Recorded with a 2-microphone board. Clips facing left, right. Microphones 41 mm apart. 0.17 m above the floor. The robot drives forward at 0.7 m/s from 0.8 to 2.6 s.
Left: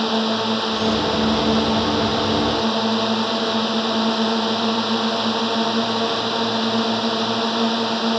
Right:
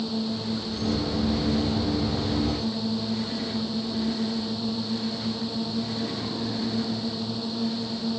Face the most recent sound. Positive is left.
turn(degrees=75)  # may be behind; listen again after turning